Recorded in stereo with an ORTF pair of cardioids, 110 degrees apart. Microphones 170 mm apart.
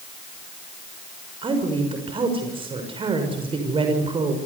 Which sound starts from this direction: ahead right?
A woman speaking, at 1.4 s.